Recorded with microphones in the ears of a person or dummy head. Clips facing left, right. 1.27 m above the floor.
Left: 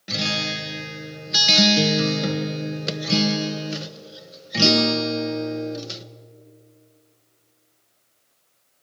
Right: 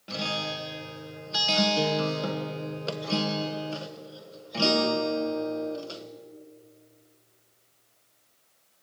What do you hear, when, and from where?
0.1 s a guitar: 25° left (ahead or behind), 0.9 m